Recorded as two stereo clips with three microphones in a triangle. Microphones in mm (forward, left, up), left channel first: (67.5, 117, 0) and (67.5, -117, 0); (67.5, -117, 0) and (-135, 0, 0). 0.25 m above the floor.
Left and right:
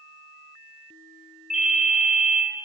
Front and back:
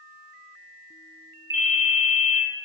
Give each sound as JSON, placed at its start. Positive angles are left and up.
{"t": 1.5, "sound": "a ringtone", "azimuth_deg": -35, "distance_m": 1.0}